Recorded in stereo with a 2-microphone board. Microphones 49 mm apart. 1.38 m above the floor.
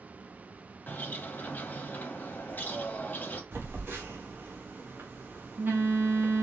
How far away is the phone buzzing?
About 0.9 m.